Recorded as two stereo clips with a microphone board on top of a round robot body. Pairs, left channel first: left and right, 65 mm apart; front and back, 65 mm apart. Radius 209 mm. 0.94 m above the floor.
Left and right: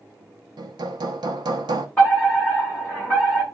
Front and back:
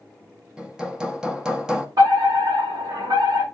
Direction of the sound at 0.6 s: 100° right.